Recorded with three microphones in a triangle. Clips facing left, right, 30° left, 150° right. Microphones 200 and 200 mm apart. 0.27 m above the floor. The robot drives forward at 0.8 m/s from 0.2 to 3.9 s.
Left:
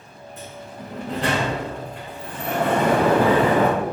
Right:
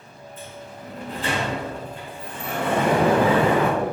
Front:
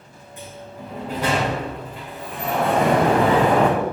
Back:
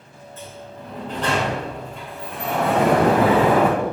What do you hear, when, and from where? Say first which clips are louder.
0.4 s a sliding door: left 2 dB, front 1 dB; 105° left, 5.5 m; by 3.7 s 125° left, 7 m
2.7 s an explosion: even, back 1 dB; 165° right, 5 m; by 3.8 s 170° right, 6 m